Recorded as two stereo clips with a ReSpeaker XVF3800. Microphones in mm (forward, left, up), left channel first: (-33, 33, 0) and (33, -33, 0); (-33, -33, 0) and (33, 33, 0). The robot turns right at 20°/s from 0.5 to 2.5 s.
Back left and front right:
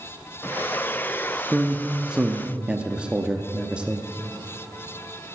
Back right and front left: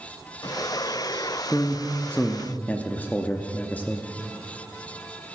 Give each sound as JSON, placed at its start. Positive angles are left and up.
{"t": 1.5, "sound": "a man speaking", "azimuth_deg": -120, "distance_m": 0.6}